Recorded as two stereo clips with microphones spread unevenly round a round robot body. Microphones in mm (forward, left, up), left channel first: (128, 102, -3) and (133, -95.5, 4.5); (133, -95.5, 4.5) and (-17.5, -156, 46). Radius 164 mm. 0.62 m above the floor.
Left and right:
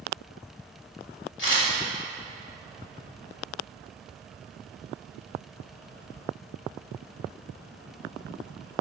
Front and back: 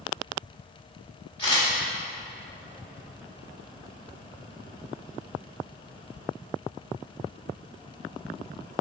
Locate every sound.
1.4 s a camera shutter: 100° left, 1.6 m